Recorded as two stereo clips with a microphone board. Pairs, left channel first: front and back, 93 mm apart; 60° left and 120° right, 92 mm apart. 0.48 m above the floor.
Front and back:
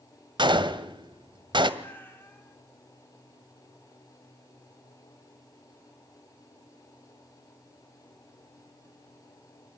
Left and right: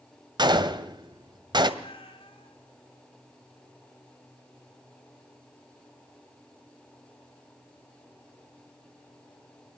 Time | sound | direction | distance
0.4 | a gunshot | 155° right | 1.7 m
1.8 | a cat meowing | 70° left | 2.5 m